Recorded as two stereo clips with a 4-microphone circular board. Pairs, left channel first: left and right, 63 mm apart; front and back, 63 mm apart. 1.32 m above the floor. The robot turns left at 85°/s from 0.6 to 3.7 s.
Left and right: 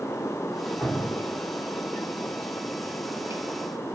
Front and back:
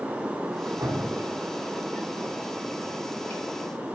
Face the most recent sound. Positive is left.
turn(degrees=-80)